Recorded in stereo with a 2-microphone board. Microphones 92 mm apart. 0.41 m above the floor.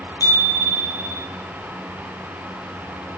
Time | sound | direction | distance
0.2 | a bicycle bell | 45° left (ahead or behind) | 8 m